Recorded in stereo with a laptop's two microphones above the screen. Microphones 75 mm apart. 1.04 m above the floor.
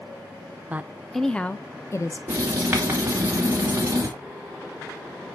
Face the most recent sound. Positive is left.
turn(degrees=-30)  # may be behind; listen again after turning